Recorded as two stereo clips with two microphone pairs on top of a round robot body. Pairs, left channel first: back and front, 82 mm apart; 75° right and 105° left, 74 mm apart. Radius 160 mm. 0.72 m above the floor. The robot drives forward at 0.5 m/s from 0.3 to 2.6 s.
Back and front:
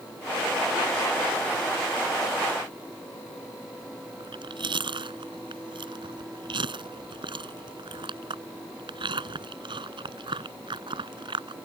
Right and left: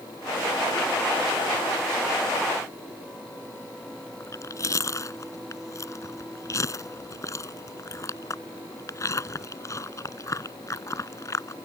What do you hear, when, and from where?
4.2 s chewing: 25° right